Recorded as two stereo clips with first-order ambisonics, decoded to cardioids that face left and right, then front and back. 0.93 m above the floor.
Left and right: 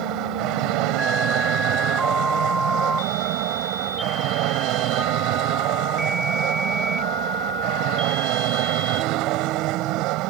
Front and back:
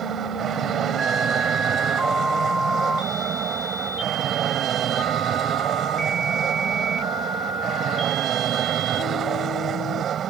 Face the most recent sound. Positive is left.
turn(degrees=-120)